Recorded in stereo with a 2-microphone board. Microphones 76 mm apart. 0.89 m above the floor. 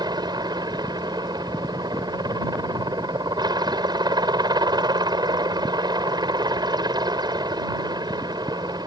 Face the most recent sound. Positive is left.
turn(degrees=-65)  # may be behind; listen again after turning